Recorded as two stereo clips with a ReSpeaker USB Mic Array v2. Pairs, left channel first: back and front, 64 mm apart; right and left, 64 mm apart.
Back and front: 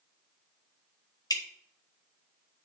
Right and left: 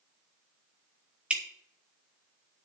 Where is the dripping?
165° left, 1.5 m.